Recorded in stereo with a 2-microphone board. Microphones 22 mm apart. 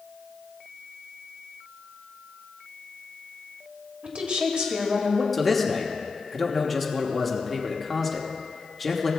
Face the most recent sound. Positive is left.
turn(degrees=0)  # may be behind; listen again after turning